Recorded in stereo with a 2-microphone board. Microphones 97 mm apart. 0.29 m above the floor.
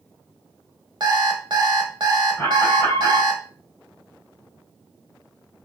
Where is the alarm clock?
45° right (ahead or behind), 0.6 m.